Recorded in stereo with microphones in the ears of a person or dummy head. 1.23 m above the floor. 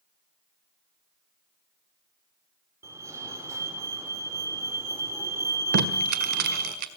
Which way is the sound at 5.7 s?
50° right (ahead or behind).